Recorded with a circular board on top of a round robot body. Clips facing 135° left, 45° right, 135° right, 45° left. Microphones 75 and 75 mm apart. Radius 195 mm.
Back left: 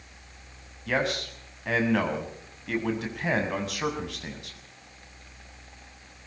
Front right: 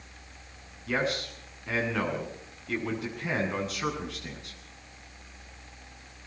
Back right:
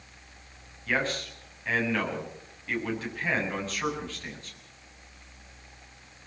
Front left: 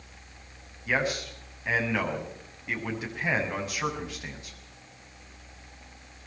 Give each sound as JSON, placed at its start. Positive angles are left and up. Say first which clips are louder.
{"t": 0.9, "sound": "a man speaking", "louder": "back left 2 dB, front left 1 dB", "azimuth_deg": 125, "distance_m": 7.0}